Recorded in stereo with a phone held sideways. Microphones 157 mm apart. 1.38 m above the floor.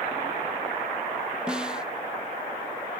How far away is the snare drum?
About 0.7 m.